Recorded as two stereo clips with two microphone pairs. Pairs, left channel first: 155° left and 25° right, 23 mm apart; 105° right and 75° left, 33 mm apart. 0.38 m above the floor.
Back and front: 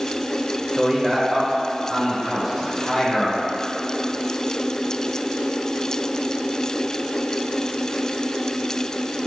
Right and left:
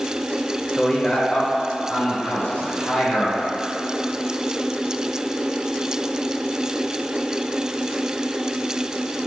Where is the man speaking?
65° right, 1.1 m; by 3.4 s 115° right, 2 m.